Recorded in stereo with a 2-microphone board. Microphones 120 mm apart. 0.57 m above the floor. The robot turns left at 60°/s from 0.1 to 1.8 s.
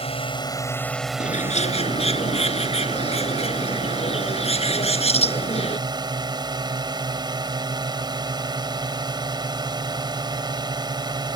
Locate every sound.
0.0 s a drone: 60° left; by 11.4 s 40° right
1.2 s a bird: 95° left; by 5.8 s 60° left